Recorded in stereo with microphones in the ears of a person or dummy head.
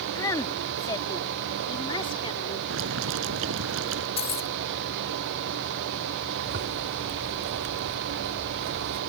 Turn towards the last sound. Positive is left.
turn(degrees=-50)  # may be behind; listen again after turning